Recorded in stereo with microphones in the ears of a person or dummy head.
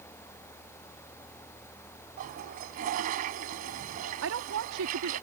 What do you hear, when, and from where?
2.2 s a toilet flushing: 45° right (ahead or behind)
4.2 s a woman speaking: 75° right (ahead or behind)